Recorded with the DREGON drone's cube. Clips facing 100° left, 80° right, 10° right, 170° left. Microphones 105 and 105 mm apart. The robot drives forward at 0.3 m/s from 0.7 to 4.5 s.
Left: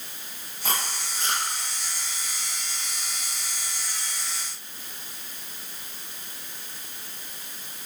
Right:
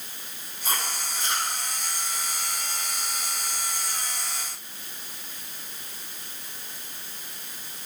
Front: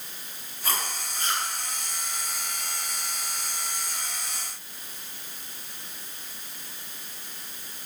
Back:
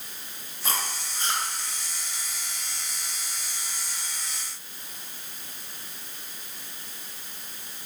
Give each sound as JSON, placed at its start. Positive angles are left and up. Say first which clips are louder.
{"t": 0.6, "sound": "chewing", "louder": "even, even", "azimuth_deg": 100, "distance_m": 5.5}